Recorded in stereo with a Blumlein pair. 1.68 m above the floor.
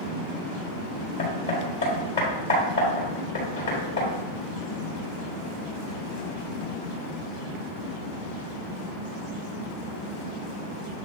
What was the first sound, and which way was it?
Hammering, 60° left.